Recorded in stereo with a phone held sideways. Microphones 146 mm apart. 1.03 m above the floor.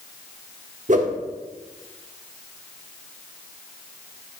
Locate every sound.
0.9 s a whoosh: 55° right (ahead or behind), 0.9 m